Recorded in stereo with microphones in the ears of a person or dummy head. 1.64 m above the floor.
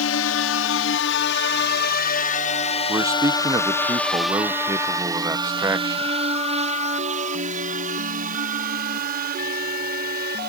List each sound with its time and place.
0.0 s a drone: 65° left (ahead or behind); by 10.5 s 50° right (ahead or behind)
2.9 s a man speaking: 15° right (ahead or behind)